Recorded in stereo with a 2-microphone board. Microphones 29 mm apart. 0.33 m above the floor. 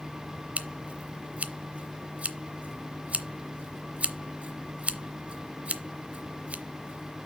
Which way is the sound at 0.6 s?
50° right (ahead or behind).